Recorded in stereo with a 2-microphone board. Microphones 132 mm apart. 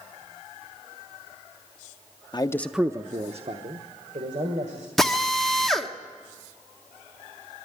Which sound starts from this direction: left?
A man speaking, at 2.3 s.